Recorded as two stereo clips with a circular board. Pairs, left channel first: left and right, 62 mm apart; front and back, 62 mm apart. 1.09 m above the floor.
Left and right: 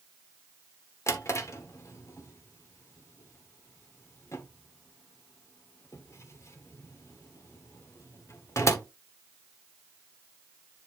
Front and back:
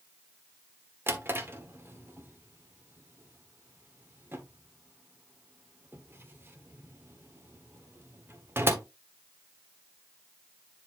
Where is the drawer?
125° left, 1.3 m.